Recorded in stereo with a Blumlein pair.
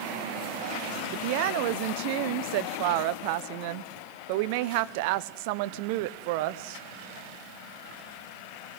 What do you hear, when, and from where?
1.1 s a woman speaking: 45° right, 0.9 m